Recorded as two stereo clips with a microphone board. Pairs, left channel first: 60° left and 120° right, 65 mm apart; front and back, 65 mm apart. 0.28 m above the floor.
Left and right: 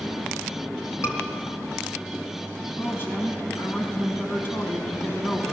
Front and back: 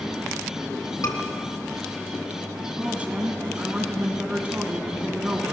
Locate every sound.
1.0 s a scream: 20° left, 4.5 m
2.8 s a woman speaking: 110° left, 3 m